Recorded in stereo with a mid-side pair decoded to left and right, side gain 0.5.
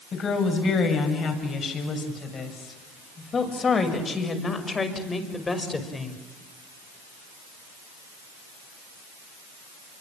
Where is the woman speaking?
50° left, 8 m; by 6.2 s 20° left, 5.5 m.